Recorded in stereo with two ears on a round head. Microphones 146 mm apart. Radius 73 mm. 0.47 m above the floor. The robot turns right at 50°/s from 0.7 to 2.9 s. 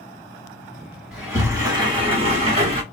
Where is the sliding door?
165° right, 1.3 m; by 2.8 s 80° right, 1.3 m.